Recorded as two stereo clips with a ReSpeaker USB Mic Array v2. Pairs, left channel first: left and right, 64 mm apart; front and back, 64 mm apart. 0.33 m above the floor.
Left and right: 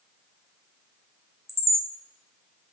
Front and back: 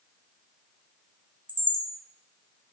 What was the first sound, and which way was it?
A chime, 125° left.